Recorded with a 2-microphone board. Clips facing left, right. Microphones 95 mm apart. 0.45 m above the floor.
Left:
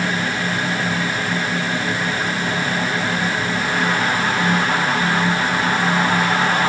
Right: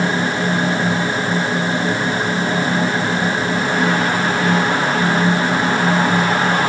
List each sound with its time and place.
Only background noise.